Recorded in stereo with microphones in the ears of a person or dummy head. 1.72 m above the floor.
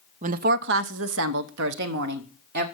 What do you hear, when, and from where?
0.2 s a woman speaking: 40° right (ahead or behind), 0.7 m; by 2.6 s 60° right (ahead or behind), 1.6 m